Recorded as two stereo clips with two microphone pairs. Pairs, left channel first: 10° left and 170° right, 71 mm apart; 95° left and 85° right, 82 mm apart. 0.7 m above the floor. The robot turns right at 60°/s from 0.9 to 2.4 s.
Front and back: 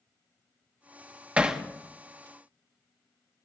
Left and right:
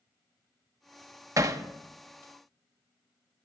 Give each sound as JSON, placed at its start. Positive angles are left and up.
{"t": 1.4, "sound": "hammering", "azimuth_deg": -105, "distance_m": 0.8}